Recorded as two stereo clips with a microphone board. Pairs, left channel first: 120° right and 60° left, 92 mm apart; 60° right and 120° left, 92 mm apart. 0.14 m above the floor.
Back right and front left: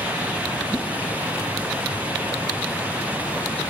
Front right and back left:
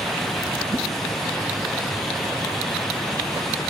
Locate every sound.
0.7 s a whoosh: 110° left, 2.5 m